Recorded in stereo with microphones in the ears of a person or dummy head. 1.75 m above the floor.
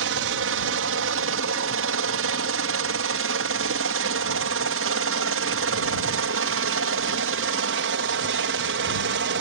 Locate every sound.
0.0 s a helicopter: 70° right (ahead or behind); by 9.4 s 65° right (ahead or behind)